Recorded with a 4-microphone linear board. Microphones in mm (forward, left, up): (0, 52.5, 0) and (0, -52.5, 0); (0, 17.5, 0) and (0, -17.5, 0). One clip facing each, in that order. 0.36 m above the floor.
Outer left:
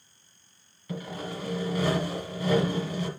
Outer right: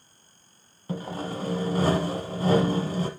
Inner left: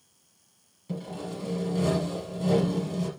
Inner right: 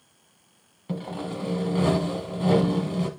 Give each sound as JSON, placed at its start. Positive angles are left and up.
{"t": 0.9, "sound": "sawing", "side_deg": -45, "distance_m": 1.1}